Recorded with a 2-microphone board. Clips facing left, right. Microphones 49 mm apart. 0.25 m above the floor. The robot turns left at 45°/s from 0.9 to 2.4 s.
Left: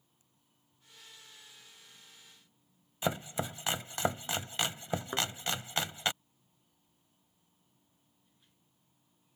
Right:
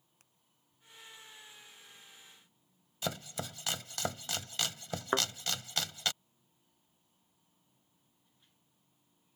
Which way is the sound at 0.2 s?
75° right (ahead or behind).